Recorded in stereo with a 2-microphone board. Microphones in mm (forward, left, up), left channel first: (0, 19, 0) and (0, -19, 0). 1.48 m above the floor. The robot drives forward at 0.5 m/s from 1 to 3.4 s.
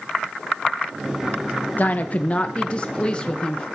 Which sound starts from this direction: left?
A woman speaking, at 1.8 s.